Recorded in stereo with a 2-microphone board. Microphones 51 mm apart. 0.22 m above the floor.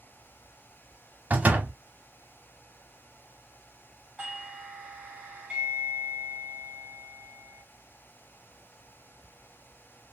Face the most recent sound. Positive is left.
turn(degrees=-20)  # may be behind; listen again after turning